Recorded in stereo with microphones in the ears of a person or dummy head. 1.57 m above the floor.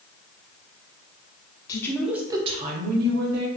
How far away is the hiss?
I don't hear a hiss.